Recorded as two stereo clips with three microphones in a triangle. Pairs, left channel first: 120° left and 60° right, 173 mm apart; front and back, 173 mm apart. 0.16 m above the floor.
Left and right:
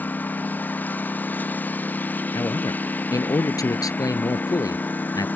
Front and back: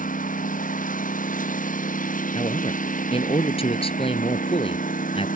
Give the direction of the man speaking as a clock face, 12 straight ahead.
10 o'clock.